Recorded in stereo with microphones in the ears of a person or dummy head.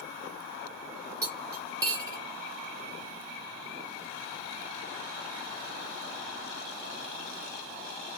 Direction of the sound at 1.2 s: 20° right (ahead or behind).